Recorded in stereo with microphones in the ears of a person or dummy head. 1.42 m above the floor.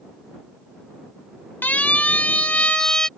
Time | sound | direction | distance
1.6 | a siren | 10° left (ahead or behind) | ?